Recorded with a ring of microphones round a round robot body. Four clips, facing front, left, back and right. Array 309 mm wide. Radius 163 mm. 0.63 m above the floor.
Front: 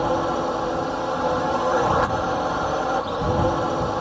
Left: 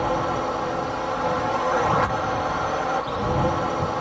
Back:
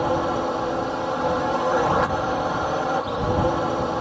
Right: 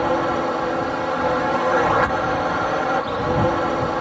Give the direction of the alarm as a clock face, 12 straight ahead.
I don't hear an alarm.